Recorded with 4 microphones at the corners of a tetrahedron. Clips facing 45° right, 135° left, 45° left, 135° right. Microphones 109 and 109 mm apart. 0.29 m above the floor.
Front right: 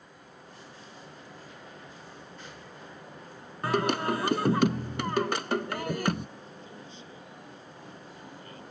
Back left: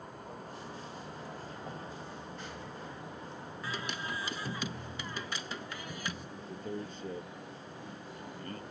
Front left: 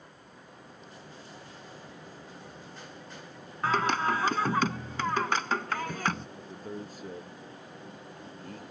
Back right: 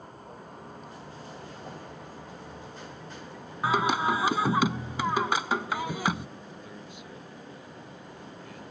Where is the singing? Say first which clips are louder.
Front right 14 dB, back right 2 dB; 55° right.